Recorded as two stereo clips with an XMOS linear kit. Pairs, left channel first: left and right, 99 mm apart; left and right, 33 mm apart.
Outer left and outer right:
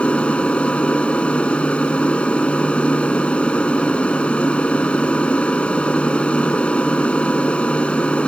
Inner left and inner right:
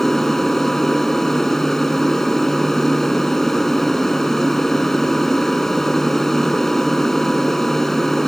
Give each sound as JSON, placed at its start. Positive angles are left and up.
{"t": 0.0, "sound": "an aircraft", "side_deg": 10}